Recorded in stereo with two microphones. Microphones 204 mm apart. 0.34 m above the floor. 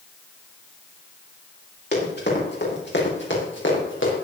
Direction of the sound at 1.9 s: 50° left (ahead or behind).